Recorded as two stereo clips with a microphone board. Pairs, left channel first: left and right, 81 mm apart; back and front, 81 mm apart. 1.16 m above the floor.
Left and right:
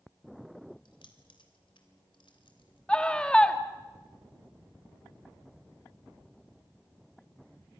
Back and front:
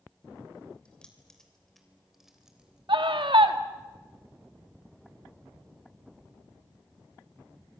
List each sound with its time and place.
0.8 s keys jangling: 100° left, 3 m; by 2.8 s 80° left, 3.5 m
2.9 s a scream: 10° left, 1.8 m